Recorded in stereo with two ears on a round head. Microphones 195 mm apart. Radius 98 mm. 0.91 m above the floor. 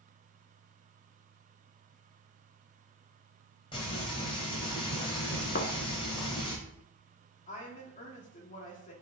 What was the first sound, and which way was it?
Frying, 25° left (ahead or behind).